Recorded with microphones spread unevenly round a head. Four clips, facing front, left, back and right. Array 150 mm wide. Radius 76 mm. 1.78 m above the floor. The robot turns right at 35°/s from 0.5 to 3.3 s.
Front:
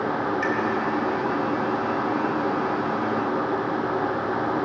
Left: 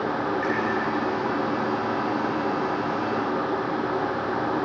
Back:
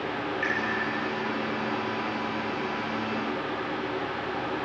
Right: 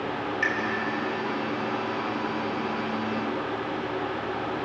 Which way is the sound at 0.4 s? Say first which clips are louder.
Left 3 dB, front 5 dB; 80° right.